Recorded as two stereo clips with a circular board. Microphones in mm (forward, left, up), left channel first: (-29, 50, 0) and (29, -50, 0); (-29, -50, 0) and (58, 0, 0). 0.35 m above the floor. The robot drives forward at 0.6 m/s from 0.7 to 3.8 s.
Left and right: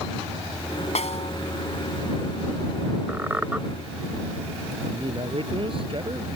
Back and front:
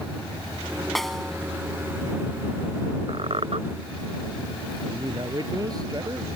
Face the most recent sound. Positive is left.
turn(degrees=-20)